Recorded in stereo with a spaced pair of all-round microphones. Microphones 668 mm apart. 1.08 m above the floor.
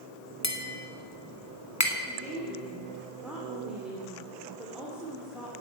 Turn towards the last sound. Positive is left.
turn(degrees=0)  # may be behind; listen again after turning